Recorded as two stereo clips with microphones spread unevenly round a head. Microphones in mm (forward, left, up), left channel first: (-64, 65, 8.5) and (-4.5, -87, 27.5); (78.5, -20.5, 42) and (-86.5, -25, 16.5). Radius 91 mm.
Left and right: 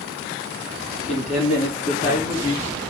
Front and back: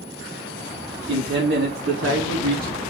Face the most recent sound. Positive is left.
turn(degrees=-170)